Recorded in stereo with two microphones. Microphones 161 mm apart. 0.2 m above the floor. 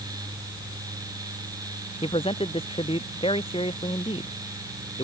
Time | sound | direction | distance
2.0 | a man speaking | 35° left (ahead or behind) | ?